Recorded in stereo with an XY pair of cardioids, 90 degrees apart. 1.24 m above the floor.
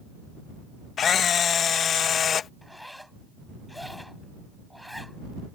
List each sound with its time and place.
1.0 s a camera shutter: 60° left
2.6 s a zipper: 5° left